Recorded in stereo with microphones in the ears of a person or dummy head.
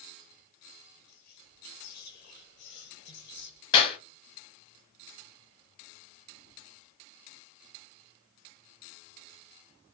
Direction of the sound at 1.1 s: 60° left (ahead or behind).